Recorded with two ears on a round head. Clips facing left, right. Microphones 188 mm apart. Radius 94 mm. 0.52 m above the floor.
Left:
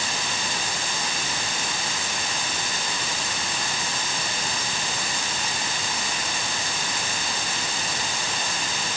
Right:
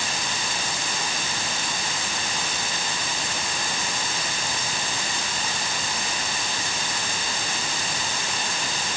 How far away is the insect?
I don't hear an insect.